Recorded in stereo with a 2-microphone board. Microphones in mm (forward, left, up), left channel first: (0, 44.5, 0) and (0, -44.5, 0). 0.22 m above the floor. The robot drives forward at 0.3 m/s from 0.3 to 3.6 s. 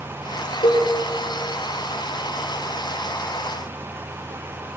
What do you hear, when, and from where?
0.6 s a cowbell: 75° left (ahead or behind), 1.0 m